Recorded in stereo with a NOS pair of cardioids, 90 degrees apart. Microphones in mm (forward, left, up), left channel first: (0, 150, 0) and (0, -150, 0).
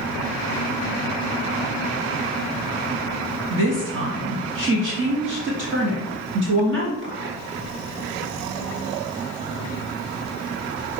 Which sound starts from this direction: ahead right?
A woman speaking, at 3.5 s.